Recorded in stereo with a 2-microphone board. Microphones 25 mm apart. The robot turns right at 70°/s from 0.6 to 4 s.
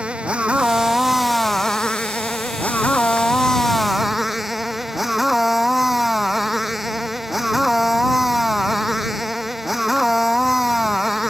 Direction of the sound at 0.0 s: 50° right.